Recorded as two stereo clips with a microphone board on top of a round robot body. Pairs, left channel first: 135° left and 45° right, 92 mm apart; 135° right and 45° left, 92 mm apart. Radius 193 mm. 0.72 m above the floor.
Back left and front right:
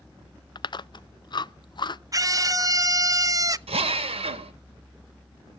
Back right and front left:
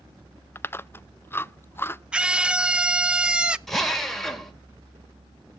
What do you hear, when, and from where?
0.6 s chewing: 160° left, 0.6 m
2.1 s a scream: 30° right, 1.0 m
3.7 s a drill: 50° right, 2.0 m